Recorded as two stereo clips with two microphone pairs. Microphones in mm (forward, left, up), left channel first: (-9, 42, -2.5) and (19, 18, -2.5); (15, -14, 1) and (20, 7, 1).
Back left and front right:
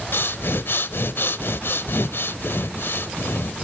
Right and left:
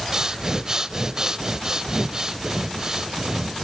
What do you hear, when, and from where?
0.1 s breathing: 130° left, 0.5 m